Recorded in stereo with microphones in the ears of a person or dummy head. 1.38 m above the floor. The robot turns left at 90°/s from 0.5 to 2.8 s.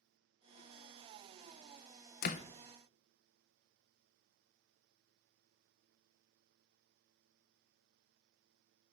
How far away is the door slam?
About 0.6 m.